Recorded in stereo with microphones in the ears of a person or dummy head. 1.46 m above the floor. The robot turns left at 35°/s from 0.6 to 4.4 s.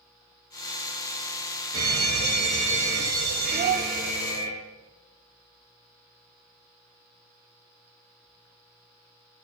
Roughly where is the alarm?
Ahead right.